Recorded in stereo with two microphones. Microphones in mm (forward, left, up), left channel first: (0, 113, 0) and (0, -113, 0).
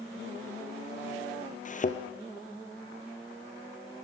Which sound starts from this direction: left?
A thud, at 1.6 s.